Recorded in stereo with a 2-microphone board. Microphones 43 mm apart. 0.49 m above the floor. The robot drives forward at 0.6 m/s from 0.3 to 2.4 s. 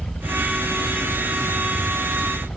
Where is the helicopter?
55° left (ahead or behind).